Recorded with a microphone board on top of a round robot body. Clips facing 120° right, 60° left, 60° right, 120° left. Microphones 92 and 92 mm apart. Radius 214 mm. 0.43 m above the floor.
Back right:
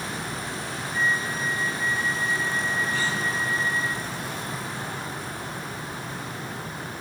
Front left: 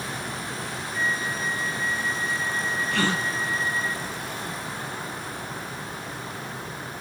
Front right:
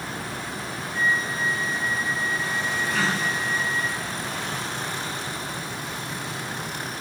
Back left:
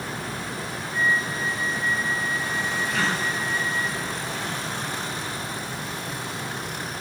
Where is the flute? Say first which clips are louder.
Back right 2 dB, back left 1 dB; 5° left, 4 m.